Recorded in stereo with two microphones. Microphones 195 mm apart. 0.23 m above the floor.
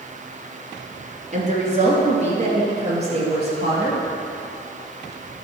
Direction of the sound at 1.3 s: 40° right (ahead or behind).